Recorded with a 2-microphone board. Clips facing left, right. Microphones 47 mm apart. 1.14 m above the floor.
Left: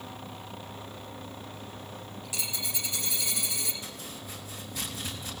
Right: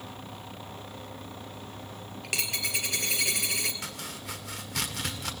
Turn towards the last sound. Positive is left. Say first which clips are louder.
# right 3 dB
turn(degrees=-80)